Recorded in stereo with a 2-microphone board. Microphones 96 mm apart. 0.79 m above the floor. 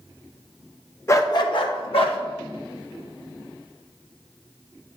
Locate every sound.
1.1 s a dog barking: 30° left (ahead or behind), 0.6 m; by 2.2 s 75° left (ahead or behind), 1.1 m